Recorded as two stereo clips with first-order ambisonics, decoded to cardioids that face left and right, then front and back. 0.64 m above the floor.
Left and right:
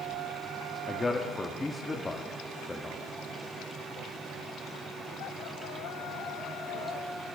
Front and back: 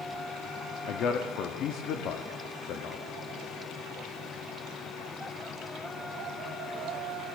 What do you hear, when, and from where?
0.9 s a man speaking: 15° left, 0.7 m